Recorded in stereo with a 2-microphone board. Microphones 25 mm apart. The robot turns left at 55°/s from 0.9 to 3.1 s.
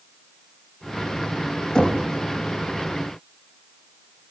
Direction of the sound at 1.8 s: 30° left (ahead or behind).